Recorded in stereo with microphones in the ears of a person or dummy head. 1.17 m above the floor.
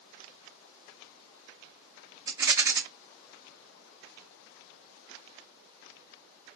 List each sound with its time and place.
2.3 s a rattle: 15° right (ahead or behind), 0.6 m